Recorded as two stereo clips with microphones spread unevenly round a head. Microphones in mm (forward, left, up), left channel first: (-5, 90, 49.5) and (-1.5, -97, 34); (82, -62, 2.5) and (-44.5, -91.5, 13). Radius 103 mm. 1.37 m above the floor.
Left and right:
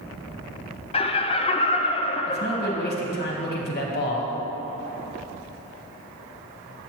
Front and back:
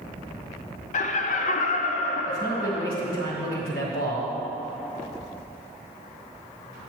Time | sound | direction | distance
0.9 | laughter | 30° left | 0.5 m
2.3 | a man speaking | 50° left | 1.4 m